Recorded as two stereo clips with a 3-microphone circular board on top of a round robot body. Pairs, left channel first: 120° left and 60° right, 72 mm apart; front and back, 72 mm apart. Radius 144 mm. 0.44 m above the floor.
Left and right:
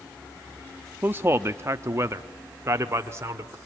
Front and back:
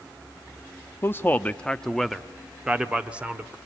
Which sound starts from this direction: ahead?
A man speaking, at 1.0 s.